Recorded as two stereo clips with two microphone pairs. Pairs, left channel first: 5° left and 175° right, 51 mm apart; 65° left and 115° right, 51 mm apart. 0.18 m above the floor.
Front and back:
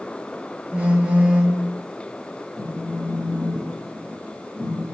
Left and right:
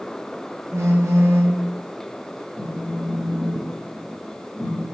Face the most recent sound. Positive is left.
turn(degrees=55)